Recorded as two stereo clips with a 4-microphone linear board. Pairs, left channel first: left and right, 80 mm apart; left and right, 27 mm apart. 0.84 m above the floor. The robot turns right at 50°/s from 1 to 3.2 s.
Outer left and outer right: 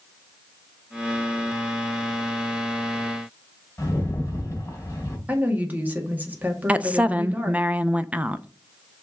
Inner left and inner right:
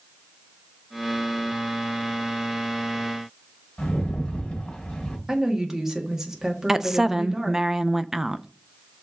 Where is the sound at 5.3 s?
20° right (ahead or behind), 1.9 m.